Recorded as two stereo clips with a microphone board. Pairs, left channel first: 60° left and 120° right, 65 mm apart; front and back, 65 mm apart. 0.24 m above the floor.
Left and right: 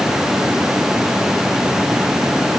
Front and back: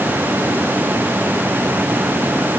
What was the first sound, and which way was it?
Only background noise.